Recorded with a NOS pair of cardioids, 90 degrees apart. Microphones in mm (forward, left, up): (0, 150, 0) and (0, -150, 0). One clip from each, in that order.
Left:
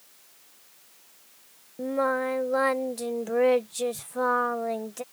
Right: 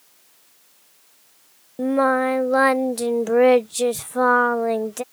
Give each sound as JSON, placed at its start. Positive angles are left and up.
{"t": 1.8, "sound": "singing", "azimuth_deg": -40}